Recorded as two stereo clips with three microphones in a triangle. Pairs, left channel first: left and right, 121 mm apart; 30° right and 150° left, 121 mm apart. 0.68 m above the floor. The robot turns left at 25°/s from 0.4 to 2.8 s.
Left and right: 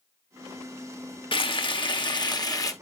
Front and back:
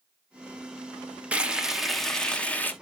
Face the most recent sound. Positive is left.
turn(degrees=40)